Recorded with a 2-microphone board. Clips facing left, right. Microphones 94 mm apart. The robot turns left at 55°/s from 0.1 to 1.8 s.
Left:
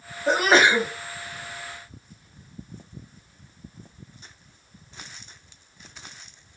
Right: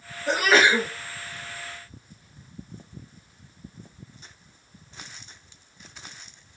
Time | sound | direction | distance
0.3 | a sneeze | 50° left | 1.6 m